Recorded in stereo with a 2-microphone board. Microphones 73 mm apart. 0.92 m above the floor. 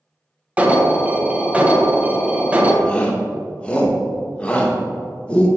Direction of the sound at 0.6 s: 20° right (ahead or behind).